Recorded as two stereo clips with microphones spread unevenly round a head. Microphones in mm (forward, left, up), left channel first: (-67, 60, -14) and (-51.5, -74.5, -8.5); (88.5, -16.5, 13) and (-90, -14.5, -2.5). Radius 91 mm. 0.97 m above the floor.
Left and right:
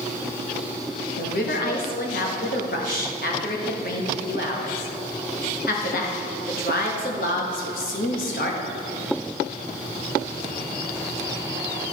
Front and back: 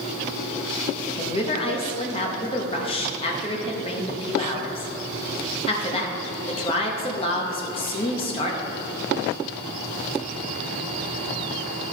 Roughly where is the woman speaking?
Ahead left.